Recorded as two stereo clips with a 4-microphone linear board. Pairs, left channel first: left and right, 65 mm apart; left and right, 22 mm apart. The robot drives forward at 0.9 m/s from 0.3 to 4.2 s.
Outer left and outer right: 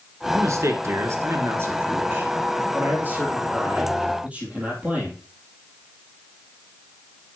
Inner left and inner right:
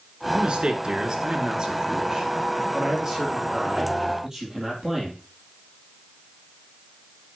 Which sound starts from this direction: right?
A man speaking, at 0.3 s.